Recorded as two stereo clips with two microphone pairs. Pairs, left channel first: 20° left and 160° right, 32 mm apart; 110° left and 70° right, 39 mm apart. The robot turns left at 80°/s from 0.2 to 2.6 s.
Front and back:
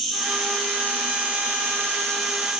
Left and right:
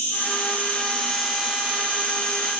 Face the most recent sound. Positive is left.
turn(degrees=-80)